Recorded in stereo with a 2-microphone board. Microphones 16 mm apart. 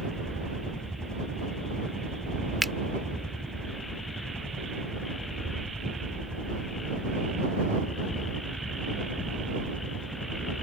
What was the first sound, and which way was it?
A helicopter, 35° left (ahead or behind).